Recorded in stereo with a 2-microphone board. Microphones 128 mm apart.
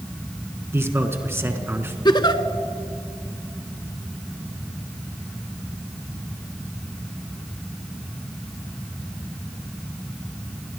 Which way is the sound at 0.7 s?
20° right (ahead or behind).